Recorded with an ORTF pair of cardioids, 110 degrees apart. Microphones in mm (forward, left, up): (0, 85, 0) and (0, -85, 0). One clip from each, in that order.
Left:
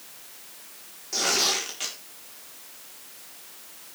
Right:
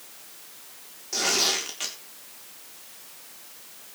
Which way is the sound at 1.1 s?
10° right.